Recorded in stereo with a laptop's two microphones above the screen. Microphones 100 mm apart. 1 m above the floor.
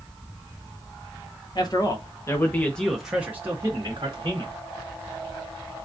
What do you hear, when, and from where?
1.6 s a man speaking: 45° left (ahead or behind), 1.2 m; by 4.5 s 50° right (ahead or behind), 1.3 m